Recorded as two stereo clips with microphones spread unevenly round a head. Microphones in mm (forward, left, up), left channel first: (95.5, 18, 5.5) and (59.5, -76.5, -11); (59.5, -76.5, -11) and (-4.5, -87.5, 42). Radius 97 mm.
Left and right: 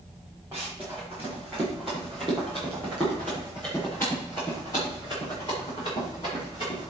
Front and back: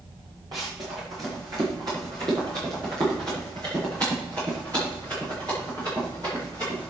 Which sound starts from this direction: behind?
Running footsteps, at 0.5 s.